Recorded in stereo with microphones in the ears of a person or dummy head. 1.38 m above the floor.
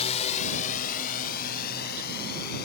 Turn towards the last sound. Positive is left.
turn(degrees=65)  # may be behind; listen again after turning